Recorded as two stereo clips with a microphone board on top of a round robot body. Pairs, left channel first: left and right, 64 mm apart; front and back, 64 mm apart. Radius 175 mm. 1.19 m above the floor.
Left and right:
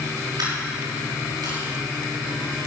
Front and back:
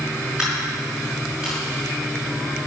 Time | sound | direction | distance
0.4 | a dropped coin | 100° right | 5.5 m